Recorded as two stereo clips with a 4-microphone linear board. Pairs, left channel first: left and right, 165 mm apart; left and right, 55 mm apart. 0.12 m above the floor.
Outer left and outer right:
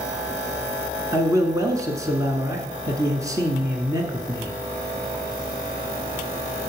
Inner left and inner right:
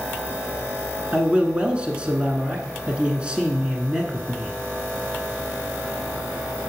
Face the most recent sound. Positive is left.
turn(degrees=-20)  # may be behind; listen again after turning